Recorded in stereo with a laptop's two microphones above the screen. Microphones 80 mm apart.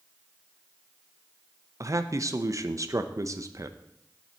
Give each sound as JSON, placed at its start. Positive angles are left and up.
{"t": 1.8, "sound": "a man speaking", "side_deg": -45, "distance_m": 0.6}